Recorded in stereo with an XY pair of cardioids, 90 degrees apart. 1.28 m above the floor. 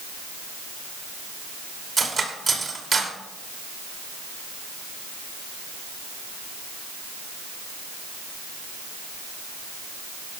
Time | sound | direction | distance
2.0 | cutlery clinking | 35° right | 2.5 m